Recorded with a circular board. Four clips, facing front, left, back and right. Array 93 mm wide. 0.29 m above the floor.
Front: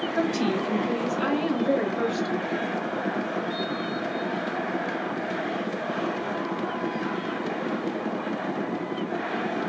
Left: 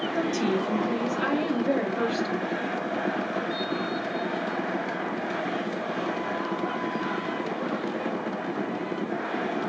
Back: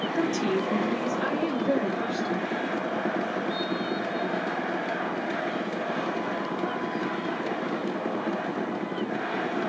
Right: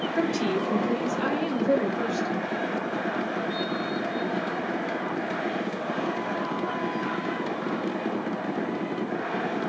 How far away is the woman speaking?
About 1.3 m.